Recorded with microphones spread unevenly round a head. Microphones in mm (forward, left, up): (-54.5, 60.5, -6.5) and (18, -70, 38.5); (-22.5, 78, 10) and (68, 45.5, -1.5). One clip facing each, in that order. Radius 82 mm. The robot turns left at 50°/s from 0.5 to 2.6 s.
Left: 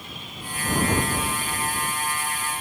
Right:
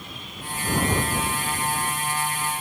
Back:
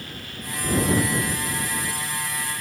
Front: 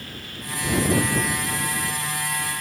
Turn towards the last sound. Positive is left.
No sound to turn to.